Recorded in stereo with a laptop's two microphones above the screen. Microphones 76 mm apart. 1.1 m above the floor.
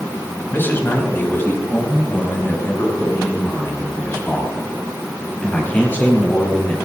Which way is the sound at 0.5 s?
30° left (ahead or behind).